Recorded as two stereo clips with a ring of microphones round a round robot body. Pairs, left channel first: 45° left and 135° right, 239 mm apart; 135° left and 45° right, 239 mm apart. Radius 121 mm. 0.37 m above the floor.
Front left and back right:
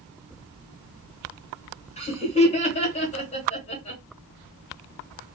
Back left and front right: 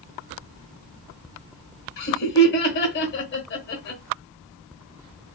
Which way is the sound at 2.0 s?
105° left.